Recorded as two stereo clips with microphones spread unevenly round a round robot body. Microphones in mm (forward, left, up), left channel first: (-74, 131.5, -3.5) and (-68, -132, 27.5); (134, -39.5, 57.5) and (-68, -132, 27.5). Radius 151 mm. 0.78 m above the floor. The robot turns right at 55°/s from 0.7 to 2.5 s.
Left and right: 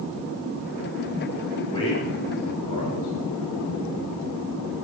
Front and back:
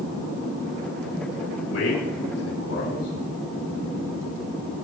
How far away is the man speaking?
About 5.5 m.